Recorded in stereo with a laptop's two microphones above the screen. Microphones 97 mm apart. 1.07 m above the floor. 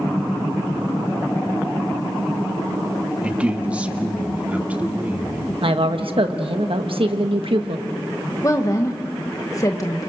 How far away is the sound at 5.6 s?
About 1.4 m.